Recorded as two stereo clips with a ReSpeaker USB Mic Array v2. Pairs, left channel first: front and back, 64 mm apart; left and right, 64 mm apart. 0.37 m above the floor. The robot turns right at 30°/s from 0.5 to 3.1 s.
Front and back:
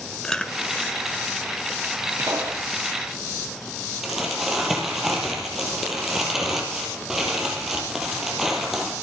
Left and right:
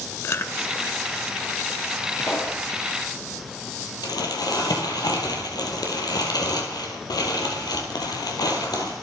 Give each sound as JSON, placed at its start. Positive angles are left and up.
{"t": 0.2, "sound": "chewing", "azimuth_deg": 75, "distance_m": 0.8}
{"t": 2.2, "sound": "a pop", "azimuth_deg": 135, "distance_m": 5.0}
{"t": 4.0, "sound": "crumpling", "azimuth_deg": 95, "distance_m": 3.5}